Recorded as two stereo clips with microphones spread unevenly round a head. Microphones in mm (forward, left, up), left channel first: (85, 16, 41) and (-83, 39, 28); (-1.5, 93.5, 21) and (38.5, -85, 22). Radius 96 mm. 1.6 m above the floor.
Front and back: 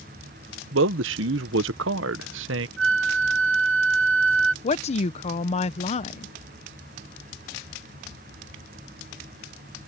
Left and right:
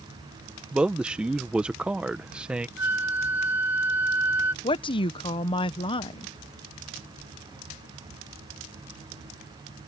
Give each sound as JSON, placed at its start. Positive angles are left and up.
{"t": 0.7, "sound": "a man speaking", "azimuth_deg": -165}
{"t": 2.8, "sound": "a flute", "azimuth_deg": -160}
{"t": 4.6, "sound": "a woman speaking", "azimuth_deg": 40}